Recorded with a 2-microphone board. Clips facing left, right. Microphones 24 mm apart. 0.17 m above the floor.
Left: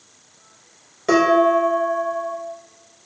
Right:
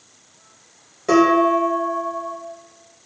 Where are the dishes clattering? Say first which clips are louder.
Even; 25° left (ahead or behind), 1.3 m.